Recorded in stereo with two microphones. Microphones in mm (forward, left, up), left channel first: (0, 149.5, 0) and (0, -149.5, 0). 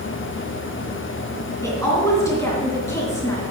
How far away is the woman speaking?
About 3 m.